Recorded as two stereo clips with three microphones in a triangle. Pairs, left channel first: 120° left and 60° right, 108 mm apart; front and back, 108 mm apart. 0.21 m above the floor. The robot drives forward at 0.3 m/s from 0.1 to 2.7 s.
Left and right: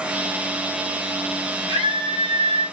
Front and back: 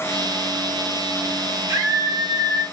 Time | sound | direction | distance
1.7 | a scream | 115° right | 5 m